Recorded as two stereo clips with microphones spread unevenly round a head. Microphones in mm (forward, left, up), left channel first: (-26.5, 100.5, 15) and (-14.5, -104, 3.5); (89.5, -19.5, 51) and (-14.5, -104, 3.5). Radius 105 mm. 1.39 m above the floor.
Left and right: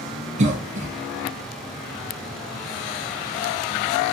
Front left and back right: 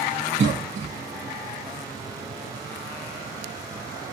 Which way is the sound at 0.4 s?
140° right.